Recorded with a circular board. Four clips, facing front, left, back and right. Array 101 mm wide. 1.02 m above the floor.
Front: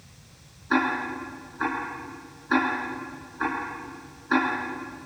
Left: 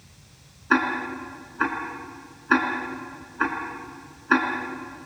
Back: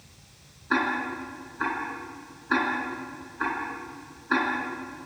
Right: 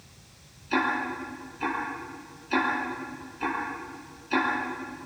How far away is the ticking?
About 4.5 m.